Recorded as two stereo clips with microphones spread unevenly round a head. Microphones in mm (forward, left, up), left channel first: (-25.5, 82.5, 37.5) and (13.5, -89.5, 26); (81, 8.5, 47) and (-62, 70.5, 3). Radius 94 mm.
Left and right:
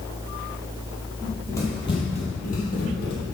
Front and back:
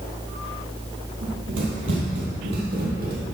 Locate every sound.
1.2 s running footsteps: 175° right, 2 m; by 3.1 s 125° left, 3 m